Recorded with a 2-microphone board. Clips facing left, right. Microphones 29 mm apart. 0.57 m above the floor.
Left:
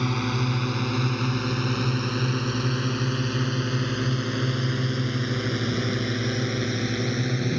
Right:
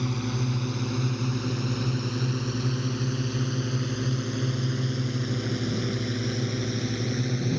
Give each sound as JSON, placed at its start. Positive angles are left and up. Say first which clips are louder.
{"t": 0.0, "sound": "a drone", "louder": "left 4 dB", "side_deg": 45}